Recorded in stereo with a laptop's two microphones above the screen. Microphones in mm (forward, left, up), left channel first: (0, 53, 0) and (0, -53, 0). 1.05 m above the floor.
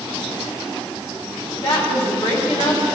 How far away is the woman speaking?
About 3 m.